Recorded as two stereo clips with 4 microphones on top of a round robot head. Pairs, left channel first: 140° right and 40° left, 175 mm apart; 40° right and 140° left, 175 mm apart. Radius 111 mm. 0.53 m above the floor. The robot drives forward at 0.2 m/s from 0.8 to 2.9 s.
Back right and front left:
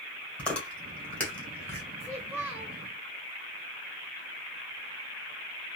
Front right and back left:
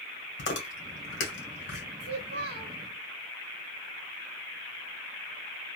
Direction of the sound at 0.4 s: 55° right.